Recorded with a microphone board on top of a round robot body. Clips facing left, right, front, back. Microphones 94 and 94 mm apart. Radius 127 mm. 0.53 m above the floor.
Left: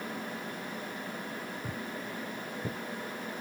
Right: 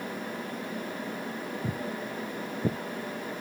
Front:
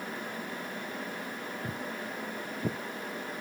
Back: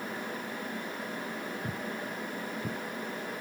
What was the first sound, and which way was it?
Footsteps, 95° right.